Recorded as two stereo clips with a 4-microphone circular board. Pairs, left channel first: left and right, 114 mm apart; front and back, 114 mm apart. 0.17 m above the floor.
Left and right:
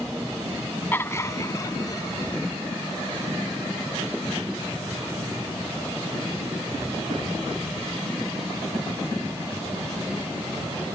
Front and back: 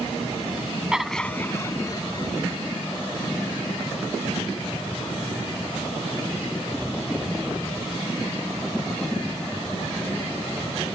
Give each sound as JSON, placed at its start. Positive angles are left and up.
{"t": 0.9, "sound": "laughter", "azimuth_deg": 110}